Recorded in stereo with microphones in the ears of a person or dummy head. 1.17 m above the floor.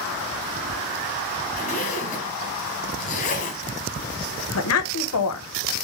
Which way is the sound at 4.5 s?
75° left (ahead or behind).